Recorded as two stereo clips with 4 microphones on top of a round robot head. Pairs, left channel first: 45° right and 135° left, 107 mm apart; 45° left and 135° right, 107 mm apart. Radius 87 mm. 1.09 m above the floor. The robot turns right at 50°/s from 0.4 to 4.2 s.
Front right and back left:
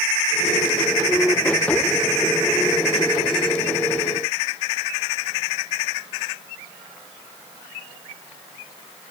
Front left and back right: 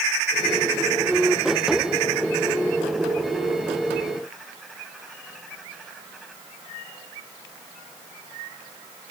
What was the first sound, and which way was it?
Only background noise.